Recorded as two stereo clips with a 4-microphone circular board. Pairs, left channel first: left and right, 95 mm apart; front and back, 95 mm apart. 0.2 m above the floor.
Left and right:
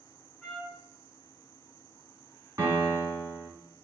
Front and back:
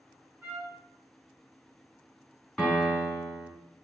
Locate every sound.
0.4 s a trumpet: 170° left, 1.5 m
2.6 s a piano: 80° right, 1.5 m